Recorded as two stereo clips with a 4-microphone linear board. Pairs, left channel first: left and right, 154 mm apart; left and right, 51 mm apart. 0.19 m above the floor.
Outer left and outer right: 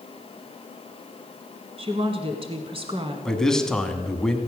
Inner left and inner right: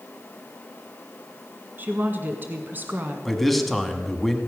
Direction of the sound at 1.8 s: 35° right (ahead or behind).